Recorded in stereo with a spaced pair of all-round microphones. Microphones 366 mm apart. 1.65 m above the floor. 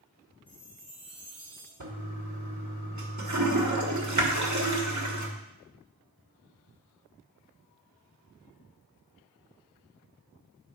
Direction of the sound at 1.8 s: 50° right (ahead or behind).